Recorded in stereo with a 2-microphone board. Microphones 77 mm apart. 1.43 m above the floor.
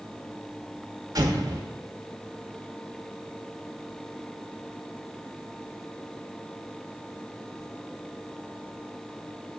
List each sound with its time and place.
1.1 s an explosion: 50° right (ahead or behind), 1.1 m